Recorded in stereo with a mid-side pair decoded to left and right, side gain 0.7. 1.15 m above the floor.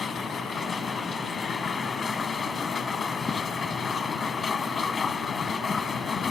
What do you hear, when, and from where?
0.0 s a machine running: 30° left